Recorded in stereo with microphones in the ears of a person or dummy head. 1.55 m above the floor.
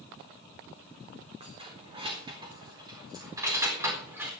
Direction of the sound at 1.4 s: 35° right (ahead or behind).